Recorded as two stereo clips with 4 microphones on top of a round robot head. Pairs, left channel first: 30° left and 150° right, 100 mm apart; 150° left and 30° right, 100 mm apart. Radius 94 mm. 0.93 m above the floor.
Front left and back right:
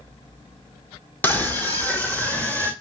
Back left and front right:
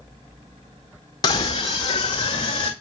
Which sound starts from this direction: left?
A scream, at 1.2 s.